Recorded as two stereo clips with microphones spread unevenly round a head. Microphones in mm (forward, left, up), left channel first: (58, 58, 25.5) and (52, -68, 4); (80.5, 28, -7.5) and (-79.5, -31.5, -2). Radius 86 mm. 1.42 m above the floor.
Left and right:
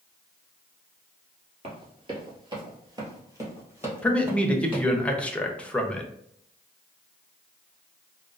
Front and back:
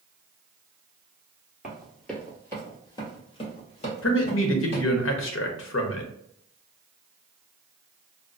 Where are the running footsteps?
80° right, 1.6 m; by 4.8 s 10° right, 2.5 m.